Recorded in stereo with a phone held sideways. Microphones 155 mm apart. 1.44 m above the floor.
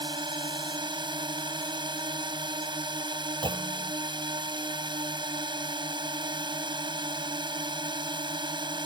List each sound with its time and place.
0.0 s a drone: 30° right (ahead or behind)
3.4 s a clunk: 30° right (ahead or behind)